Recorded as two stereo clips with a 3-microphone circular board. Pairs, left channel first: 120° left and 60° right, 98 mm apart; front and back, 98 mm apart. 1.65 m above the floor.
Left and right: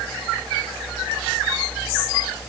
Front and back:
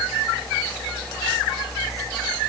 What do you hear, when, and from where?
Only background noise.